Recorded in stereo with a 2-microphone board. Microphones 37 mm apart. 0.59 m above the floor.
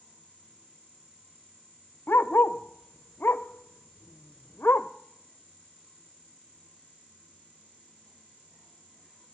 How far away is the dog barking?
About 0.7 m.